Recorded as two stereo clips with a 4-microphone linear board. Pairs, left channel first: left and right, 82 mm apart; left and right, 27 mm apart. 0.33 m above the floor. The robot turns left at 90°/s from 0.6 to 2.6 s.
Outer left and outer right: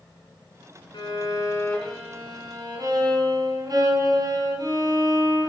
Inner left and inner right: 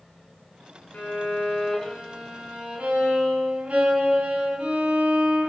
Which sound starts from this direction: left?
A violin, at 0.9 s.